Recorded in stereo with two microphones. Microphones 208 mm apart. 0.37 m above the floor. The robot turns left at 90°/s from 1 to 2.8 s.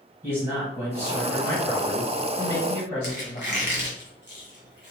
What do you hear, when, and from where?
0.2 s a man speaking: 145° right, 1.9 m; by 3.7 s 55° left, 1.9 m
3.0 s a squeak: 50° left (ahead or behind), 1.9 m